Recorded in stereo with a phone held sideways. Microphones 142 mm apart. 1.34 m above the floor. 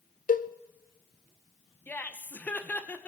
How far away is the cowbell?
About 0.6 m.